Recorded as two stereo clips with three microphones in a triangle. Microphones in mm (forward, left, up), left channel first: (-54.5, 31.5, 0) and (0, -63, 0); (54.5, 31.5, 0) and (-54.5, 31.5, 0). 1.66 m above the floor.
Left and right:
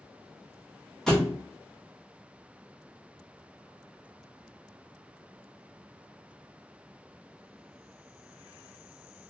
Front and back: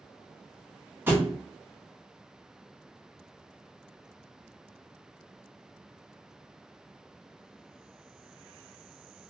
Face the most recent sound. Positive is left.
turn(degrees=-160)